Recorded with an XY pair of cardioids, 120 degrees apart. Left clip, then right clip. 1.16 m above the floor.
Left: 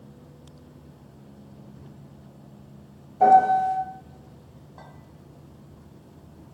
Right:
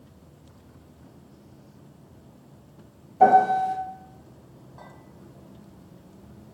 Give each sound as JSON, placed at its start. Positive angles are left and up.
{"t": 3.2, "sound": "a piano", "azimuth_deg": -20, "distance_m": 1.0}
{"t": 4.8, "sound": "a clink", "azimuth_deg": 30, "distance_m": 1.7}